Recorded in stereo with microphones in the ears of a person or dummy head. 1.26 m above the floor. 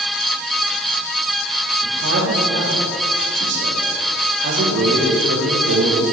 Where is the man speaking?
60° right (ahead or behind), 3.5 m.